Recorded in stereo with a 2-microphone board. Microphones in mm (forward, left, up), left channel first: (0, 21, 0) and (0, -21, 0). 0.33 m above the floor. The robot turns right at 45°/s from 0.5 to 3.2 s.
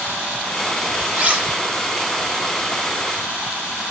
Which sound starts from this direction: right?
Cutlery clinking, at 1.1 s.